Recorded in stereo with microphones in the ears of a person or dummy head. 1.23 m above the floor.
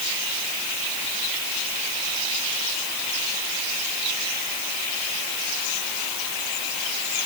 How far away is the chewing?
No chewing in this recording.